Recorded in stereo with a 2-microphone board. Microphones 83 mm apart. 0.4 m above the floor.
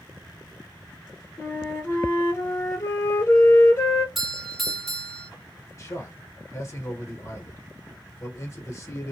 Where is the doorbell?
Centre (ahead or behind), 1.5 m.